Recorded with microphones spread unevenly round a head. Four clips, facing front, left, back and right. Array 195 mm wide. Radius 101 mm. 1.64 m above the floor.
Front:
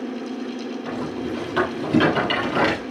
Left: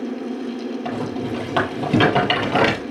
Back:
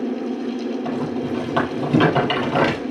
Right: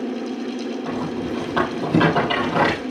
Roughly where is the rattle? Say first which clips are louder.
Left 1 dB, back 4 dB; left.